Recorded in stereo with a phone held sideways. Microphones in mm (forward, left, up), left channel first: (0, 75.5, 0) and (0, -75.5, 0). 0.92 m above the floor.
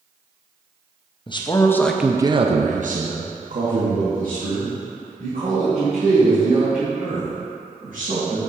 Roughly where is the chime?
I don't hear a chime.